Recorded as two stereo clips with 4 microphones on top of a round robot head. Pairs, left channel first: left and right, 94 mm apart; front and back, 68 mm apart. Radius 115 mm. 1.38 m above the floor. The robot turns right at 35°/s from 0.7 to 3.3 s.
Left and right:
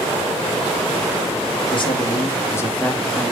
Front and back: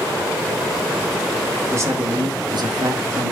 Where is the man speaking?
125° left, 2.5 m; by 3.3 s straight behind, 2.5 m.